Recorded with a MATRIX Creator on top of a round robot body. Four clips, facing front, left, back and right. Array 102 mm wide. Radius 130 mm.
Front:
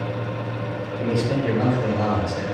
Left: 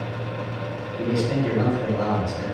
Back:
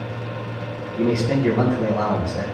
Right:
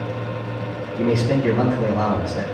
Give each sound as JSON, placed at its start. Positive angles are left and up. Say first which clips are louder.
{"t": 0.9, "sound": "a man speaking", "louder": "right 4 dB, back 3 dB", "azimuth_deg": -140, "distance_m": 4.5}